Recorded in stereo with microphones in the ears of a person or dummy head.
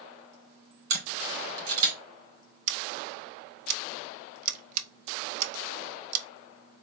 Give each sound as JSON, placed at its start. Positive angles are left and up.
{"t": 0.9, "sound": "a camera shutter", "side_deg": -85, "distance_m": 2.5}
{"t": 2.7, "sound": "scissors", "side_deg": -45, "distance_m": 0.6}